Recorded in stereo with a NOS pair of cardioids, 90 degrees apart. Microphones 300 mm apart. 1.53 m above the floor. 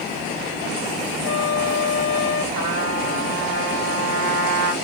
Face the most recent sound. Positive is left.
turn(degrees=-65)